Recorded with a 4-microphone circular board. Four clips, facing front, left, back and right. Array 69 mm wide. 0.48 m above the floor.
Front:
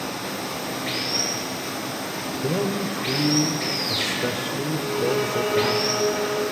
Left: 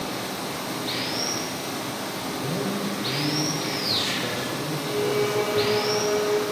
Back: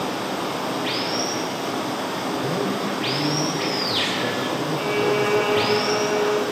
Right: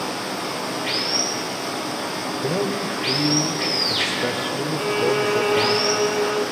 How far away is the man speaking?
About 1.8 m.